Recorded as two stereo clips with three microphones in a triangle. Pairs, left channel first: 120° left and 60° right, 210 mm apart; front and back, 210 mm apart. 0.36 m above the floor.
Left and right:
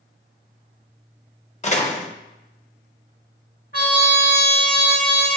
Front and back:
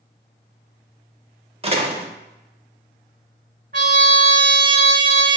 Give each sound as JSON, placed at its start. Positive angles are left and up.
{"t": 1.6, "sound": "a door slam", "azimuth_deg": 145, "distance_m": 0.7}
{"t": 3.7, "sound": "a trumpet", "azimuth_deg": 145, "distance_m": 1.4}